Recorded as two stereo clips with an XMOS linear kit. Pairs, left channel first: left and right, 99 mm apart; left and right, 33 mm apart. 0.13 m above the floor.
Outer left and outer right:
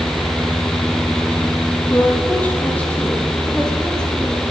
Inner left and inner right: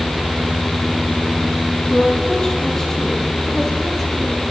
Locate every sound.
1.9 s a woman speaking: 20° left (ahead or behind), 3.5 m; by 4.4 s 5° left (ahead or behind), 6.5 m